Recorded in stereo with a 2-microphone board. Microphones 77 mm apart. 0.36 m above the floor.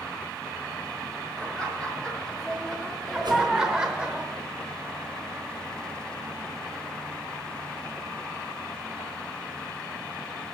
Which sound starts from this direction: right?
A whoosh, at 3.2 s.